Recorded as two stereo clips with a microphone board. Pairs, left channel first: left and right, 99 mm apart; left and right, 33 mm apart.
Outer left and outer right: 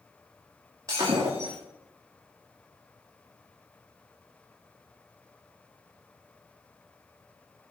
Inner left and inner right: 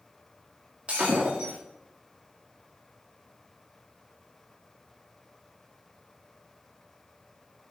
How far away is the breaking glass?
About 8 m.